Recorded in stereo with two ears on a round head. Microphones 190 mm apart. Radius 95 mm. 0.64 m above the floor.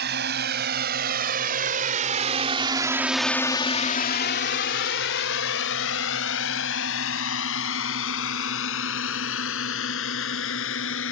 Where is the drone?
50° right (ahead or behind); by 11.1 s 65° left (ahead or behind).